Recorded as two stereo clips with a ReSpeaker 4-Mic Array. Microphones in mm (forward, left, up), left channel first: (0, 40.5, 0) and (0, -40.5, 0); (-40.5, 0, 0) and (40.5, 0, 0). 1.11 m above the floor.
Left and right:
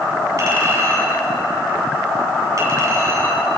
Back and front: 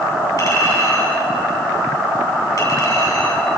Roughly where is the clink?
Behind right.